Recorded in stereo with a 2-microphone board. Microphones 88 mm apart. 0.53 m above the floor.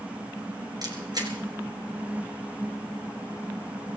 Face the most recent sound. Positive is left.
turn(degrees=-50)  # may be behind; listen again after turning